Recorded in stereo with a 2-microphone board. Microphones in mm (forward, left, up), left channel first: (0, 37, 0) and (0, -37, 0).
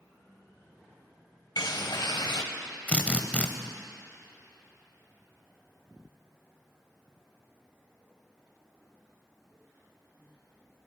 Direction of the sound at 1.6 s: 70° left (ahead or behind).